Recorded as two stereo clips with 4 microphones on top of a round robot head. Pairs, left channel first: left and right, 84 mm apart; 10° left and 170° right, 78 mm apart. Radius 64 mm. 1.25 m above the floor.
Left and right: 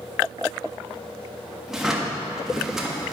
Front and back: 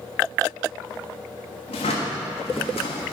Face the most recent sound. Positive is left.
turn(degrees=-5)